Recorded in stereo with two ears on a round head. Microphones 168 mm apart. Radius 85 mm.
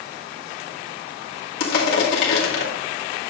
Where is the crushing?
50° left (ahead or behind), 1.8 m.